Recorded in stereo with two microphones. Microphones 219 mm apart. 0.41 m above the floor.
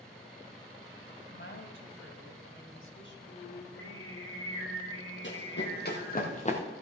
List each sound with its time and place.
1.3 s a woman speaking: 60° left (ahead or behind), 2.0 m
3.3 s singing: 65° left (ahead or behind), 6 m
5.2 s running footsteps: 60° left (ahead or behind), 3 m; by 6.6 s 25° left (ahead or behind), 2.5 m